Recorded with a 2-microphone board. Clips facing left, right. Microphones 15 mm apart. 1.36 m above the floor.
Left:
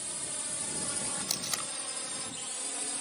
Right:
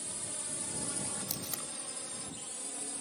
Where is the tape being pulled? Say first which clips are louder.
Left 6 dB; 40° left (ahead or behind).